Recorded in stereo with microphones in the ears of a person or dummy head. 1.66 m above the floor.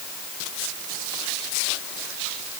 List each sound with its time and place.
Only background noise.